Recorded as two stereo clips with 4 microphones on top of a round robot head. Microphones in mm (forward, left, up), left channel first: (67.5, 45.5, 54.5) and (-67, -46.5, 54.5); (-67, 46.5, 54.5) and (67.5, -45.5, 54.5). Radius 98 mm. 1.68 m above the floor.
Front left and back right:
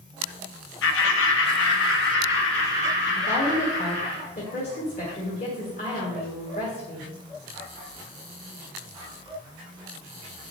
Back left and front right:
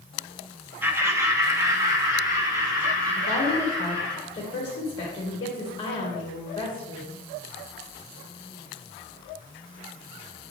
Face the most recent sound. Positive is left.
turn(degrees=85)